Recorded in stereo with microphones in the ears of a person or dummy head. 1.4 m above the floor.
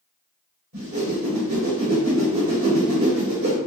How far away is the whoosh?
About 1.3 m.